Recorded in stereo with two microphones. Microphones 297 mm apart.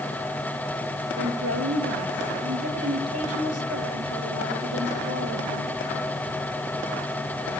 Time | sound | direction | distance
1.2 | a woman speaking | 55° right (ahead or behind) | 4.5 m